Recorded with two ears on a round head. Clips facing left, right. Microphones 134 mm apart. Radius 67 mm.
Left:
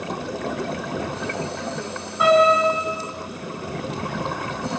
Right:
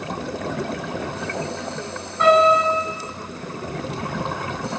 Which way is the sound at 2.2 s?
5° left (ahead or behind).